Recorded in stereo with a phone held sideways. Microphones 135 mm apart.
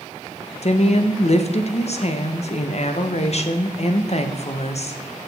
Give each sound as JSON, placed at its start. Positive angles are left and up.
{"t": 0.6, "sound": "a woman speaking", "side_deg": 55, "distance_m": 0.7}